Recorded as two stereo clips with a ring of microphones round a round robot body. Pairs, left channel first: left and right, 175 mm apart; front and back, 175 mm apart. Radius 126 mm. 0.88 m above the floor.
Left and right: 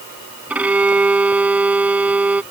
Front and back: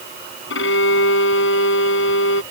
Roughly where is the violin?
Ahead.